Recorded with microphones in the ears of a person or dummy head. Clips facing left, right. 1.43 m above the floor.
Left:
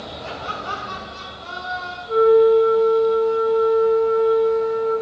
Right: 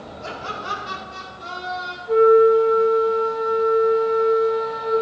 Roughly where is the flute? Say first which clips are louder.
Even; right.